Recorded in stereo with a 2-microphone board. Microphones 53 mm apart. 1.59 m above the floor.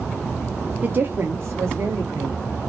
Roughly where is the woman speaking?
Right.